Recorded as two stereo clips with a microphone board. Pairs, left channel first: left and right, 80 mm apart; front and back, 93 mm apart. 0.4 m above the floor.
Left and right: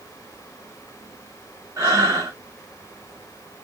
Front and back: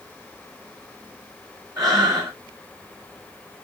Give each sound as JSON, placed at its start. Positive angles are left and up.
{"t": 1.8, "sound": "breathing", "azimuth_deg": -135, "distance_m": 1.3}